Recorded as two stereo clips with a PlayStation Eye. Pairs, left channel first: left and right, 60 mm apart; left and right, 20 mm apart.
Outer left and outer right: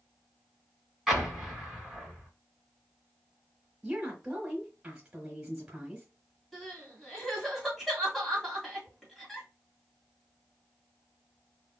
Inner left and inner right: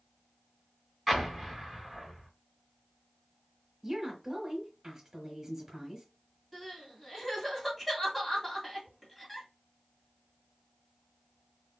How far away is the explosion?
About 1.9 m.